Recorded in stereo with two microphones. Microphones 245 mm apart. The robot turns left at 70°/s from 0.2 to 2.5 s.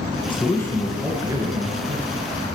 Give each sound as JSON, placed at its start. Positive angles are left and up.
{"t": 0.3, "sound": "a man speaking", "azimuth_deg": 45, "distance_m": 1.8}